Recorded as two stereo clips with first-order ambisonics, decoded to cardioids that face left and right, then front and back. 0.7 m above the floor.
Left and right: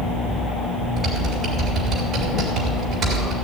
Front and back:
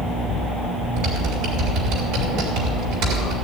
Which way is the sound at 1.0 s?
160° right.